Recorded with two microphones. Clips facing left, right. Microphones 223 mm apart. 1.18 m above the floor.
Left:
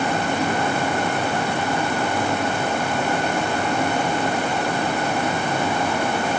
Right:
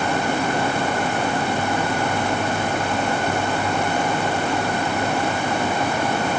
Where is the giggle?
No giggle in this recording.